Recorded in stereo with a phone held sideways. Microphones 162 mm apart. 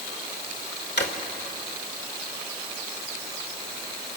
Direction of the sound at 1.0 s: 80° left.